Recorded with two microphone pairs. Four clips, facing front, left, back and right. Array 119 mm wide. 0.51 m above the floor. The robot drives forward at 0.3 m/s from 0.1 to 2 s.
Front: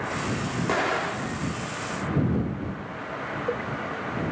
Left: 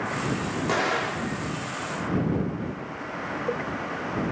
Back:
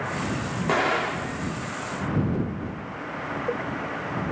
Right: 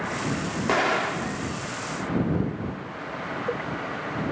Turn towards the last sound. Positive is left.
turn(degrees=-140)